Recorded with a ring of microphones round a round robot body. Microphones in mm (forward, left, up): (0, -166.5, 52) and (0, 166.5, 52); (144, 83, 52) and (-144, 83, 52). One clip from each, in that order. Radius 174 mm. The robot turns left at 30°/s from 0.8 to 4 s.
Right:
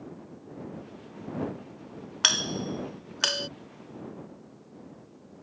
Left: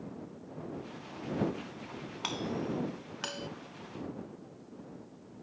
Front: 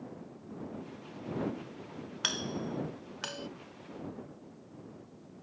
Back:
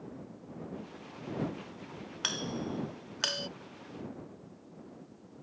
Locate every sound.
2.2 s a doorbell: 85° right; by 3.5 s 125° right